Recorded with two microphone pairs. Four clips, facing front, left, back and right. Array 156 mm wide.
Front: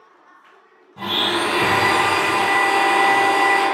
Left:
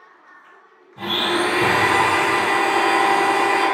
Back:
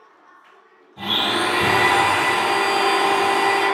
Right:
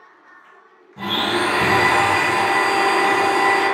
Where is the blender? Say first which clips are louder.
Even, front 1 dB; 10° right, 1.7 m.